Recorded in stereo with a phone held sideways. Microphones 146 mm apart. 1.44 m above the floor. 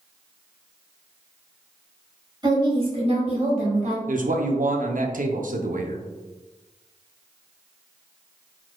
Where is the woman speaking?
30° right (ahead or behind), 1.8 m; by 4.0 s 60° right (ahead or behind), 1.6 m.